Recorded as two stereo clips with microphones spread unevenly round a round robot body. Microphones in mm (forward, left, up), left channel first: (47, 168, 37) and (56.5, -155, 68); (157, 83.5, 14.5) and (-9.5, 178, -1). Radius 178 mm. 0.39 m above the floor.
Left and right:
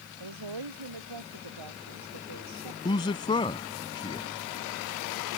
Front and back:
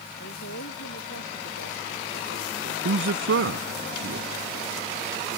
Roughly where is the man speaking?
Behind.